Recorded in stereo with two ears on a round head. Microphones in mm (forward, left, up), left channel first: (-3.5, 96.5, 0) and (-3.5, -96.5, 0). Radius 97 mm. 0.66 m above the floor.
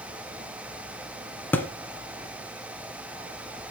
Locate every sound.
1.5 s a thud: 10° left (ahead or behind), 1.4 m